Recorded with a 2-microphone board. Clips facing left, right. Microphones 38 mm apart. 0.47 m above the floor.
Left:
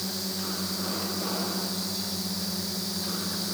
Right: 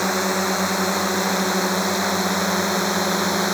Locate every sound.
0.0 s a drone: 75° right (ahead or behind)